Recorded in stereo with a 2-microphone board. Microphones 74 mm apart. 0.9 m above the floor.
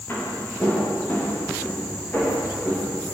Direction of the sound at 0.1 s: 30° left (ahead or behind).